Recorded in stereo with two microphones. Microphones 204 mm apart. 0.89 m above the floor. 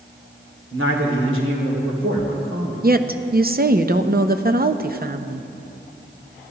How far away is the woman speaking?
About 0.7 m.